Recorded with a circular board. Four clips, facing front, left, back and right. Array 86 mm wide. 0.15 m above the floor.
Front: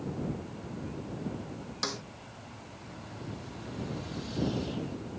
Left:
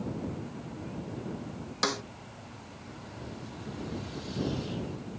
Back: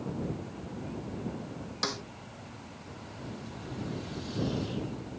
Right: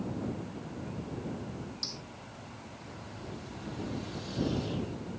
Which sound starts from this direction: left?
A snare drum, at 1.8 s.